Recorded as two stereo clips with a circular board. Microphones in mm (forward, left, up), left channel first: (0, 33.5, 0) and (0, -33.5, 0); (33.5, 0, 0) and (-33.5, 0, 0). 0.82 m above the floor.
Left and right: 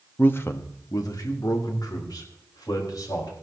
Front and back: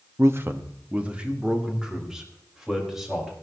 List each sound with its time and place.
0.2 s a man speaking: 150° left, 1.0 m; by 3.3 s 95° left, 4.5 m